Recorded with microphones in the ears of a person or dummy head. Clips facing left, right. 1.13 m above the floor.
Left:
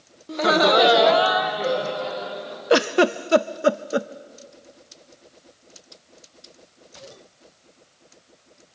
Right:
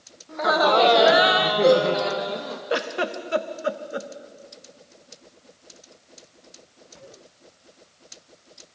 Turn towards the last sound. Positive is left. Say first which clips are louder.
# left 9 dB
turn(degrees=65)  # may be behind; listen again after turning